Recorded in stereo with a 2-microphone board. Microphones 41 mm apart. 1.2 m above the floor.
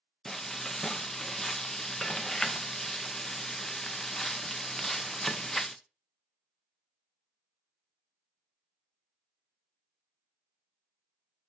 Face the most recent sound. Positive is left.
turn(degrees=10)  # may be behind; listen again after turning